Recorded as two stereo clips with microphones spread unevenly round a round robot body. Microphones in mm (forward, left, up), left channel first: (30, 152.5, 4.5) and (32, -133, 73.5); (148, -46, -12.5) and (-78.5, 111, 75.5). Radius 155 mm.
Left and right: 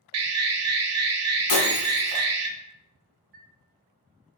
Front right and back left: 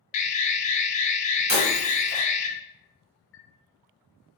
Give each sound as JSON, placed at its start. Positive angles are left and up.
{"t": 0.1, "sound": "an alarm", "azimuth_deg": -60, "distance_m": 0.6}
{"t": 1.5, "sound": "breaking glass", "azimuth_deg": 95, "distance_m": 1.7}
{"t": 3.3, "sound": "a chime", "azimuth_deg": -90, "distance_m": 0.5}